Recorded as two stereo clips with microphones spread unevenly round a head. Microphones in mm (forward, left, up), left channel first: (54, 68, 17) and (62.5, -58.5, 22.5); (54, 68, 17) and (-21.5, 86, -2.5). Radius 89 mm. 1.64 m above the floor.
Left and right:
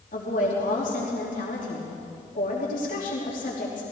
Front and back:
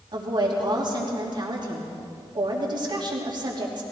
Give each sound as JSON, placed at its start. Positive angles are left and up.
{"t": 0.1, "sound": "a woman speaking", "azimuth_deg": 140, "distance_m": 3.0}